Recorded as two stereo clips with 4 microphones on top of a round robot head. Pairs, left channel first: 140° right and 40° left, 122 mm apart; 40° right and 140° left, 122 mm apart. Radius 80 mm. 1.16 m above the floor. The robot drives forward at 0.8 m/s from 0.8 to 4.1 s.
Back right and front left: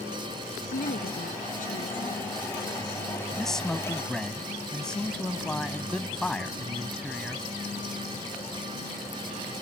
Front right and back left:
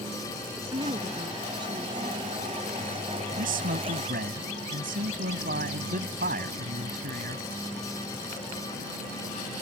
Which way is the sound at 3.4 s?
130° left.